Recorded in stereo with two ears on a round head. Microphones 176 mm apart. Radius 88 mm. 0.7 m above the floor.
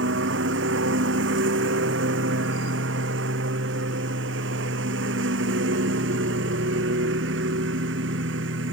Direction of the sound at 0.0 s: 65° right (ahead or behind).